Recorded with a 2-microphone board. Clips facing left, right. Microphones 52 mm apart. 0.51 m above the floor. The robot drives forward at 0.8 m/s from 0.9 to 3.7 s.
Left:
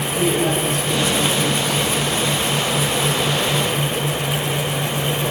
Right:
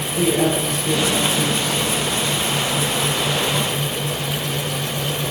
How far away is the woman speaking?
About 9.5 m.